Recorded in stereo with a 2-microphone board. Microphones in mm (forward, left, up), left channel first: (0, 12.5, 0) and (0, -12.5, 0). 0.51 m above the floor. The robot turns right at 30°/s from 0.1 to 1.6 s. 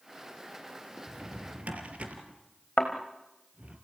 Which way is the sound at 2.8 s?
60° left (ahead or behind).